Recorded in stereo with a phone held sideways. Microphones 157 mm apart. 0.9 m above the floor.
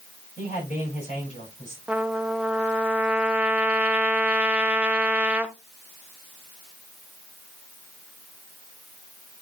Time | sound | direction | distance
0.4 | a man speaking | 50° left (ahead or behind) | 7.5 m
1.9 | a trumpet | 10° right (ahead or behind) | 0.6 m